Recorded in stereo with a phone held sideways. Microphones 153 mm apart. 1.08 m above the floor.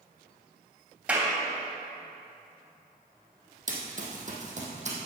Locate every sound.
1.1 s a clap: 10° right (ahead or behind), 3 m
3.7 s running footsteps: 55° right (ahead or behind), 2 m; by 5.0 s 45° right (ahead or behind), 2.5 m